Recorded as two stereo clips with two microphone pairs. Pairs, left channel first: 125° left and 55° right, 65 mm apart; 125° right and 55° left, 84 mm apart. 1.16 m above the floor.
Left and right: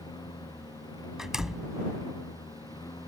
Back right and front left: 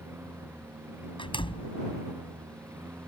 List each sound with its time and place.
0.0 s a lawn mower: 120° left
1.2 s a door slam: 140° right